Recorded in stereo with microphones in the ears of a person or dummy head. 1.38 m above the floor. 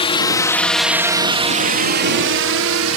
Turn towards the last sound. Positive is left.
turn(degrees=-65)  # may be behind; listen again after turning